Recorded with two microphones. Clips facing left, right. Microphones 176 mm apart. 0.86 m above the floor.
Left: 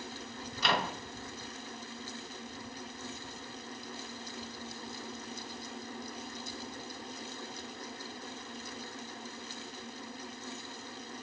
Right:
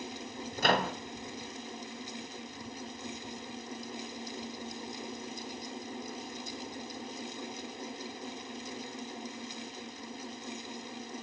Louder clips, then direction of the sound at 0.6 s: Right 4 dB; 50° right (ahead or behind).